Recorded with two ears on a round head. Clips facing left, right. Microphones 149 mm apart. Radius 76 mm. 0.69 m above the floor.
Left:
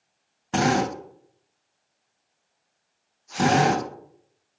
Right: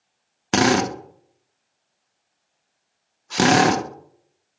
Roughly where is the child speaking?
No child speaking in this recording.